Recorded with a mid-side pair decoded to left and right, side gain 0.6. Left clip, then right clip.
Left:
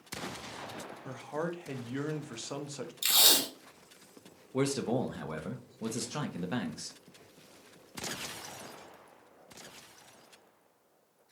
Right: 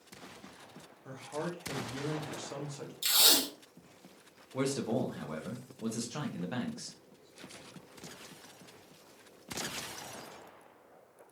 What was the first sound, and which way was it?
A man speaking, 35° left.